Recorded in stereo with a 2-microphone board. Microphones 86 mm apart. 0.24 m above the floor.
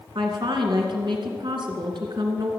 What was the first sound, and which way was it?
A woman speaking, 65° right (ahead or behind).